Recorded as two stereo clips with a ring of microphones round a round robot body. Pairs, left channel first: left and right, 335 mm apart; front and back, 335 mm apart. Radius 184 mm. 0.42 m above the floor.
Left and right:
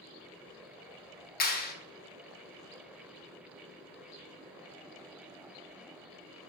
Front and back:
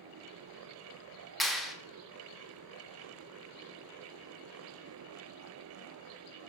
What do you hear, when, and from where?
1.4 s a clap: 90° left, 0.8 m